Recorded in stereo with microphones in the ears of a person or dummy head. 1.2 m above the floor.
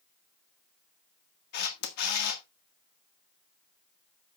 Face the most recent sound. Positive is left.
turn(degrees=60)  # may be behind; listen again after turning